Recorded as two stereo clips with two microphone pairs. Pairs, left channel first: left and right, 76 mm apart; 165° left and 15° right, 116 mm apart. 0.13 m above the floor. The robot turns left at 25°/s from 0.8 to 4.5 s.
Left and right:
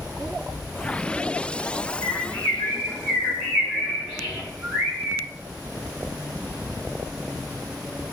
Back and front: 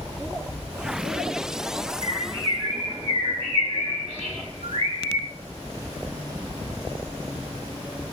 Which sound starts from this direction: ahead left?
A bird, at 2.0 s.